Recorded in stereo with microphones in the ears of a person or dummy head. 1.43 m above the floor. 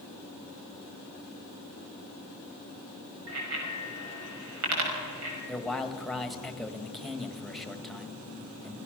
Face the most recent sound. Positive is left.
turn(degrees=0)  # may be behind; listen again after turning